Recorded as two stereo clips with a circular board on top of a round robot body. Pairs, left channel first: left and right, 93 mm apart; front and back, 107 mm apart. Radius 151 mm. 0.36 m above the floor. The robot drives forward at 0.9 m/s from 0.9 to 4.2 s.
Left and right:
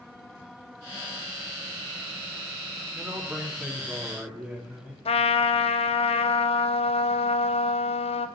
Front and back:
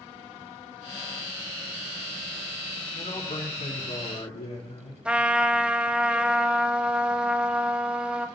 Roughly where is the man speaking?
Ahead.